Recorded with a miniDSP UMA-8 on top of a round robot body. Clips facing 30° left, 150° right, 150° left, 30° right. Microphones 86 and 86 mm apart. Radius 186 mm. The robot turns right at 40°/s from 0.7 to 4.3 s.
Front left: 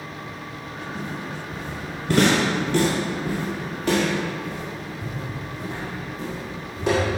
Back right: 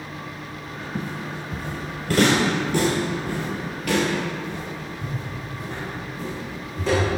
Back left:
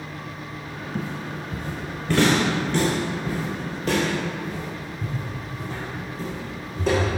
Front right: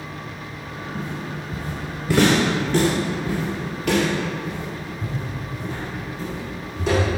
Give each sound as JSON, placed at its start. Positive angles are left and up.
{"t": 0.9, "sound": "footsteps", "azimuth_deg": 155, "distance_m": 1.3}